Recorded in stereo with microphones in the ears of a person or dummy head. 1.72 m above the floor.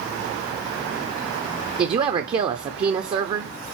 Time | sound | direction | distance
1.8 | a woman speaking | 25° right (ahead or behind) | 0.6 m